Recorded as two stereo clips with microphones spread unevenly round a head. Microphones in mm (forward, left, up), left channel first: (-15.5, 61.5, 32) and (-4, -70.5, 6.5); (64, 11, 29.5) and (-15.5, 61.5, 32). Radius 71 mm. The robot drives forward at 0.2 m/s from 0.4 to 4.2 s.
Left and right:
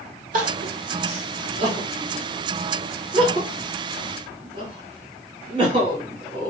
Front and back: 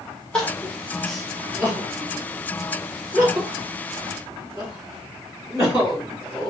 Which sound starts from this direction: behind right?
Crying, at 0.3 s.